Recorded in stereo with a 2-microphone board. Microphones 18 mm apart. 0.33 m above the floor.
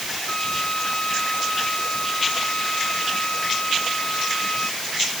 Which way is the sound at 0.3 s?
75° left (ahead or behind).